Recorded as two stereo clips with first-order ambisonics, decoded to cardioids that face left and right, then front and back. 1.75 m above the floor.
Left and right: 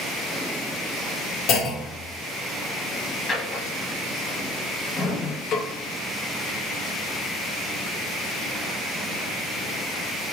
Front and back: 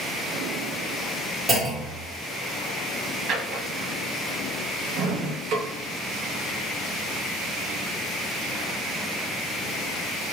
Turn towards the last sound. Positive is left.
turn(degrees=135)